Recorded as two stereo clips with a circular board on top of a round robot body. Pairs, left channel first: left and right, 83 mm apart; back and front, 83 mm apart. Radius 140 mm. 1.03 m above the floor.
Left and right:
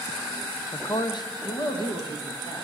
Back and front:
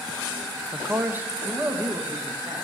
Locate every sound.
0.7 s a man speaking: 60° left, 0.6 m; by 2.6 s 70° left, 2.0 m